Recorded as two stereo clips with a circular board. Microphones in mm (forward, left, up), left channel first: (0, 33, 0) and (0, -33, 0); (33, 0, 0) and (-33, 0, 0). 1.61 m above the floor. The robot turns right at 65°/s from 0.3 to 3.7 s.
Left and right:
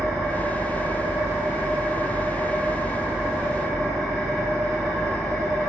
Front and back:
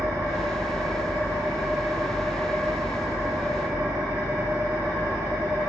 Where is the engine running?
155° left, 1.5 m; by 5.7 s 15° left, 1.5 m.